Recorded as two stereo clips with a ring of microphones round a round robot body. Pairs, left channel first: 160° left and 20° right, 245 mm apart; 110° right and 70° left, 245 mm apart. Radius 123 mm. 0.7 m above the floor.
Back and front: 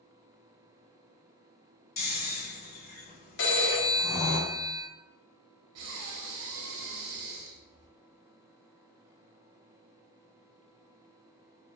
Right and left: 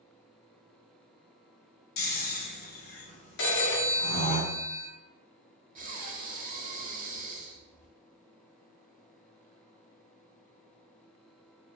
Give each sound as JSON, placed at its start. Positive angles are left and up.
{"t": 2.0, "sound": "snoring", "azimuth_deg": -155, "distance_m": 0.9}
{"t": 3.4, "sound": "a phone ringing", "azimuth_deg": -155, "distance_m": 0.9}
{"t": 5.8, "sound": "breathing", "azimuth_deg": 10, "distance_m": 0.8}